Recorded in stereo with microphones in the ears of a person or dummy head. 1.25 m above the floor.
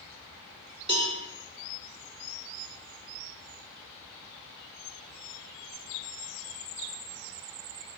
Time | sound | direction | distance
0.9 | a cowbell | 25° right (ahead or behind) | 2.5 m